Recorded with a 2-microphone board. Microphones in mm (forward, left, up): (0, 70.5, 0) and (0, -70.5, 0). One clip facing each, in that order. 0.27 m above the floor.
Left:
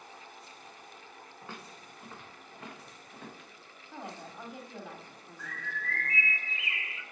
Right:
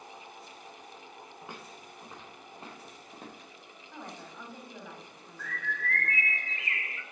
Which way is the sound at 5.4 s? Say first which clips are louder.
Right 4 dB; 5° left (ahead or behind).